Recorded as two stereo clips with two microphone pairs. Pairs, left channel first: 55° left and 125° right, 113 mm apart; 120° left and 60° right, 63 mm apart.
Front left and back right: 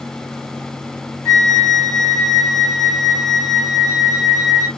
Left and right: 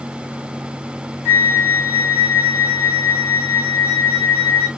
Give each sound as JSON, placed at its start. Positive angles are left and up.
{"t": 1.2, "sound": "a flute", "azimuth_deg": 175, "distance_m": 0.9}